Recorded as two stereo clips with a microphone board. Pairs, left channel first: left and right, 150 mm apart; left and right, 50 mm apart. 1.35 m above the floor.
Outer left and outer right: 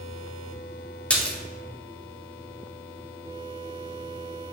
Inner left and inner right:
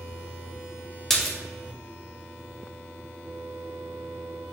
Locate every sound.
1.1 s a splash: 10° left (ahead or behind), 0.5 m